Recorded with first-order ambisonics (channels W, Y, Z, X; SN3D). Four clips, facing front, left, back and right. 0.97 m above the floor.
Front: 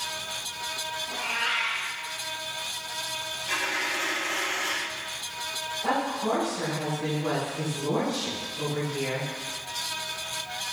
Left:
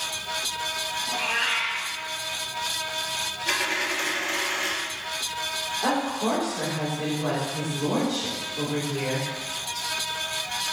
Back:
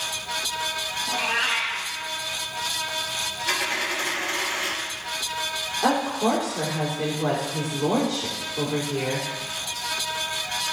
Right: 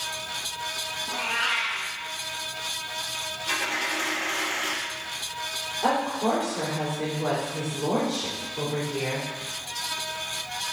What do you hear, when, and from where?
1.1 s a cat meowing: 155° left, 1.9 m
3.5 s a dropped coin: 135° left, 3.5 m
5.8 s a woman speaking: 165° left, 3.5 m